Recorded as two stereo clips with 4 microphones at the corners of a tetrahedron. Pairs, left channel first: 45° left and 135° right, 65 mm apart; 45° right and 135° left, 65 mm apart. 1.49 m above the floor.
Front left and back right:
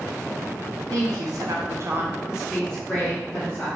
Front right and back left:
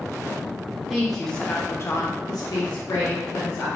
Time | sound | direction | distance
0.9 | a woman speaking | 140° right | 0.9 m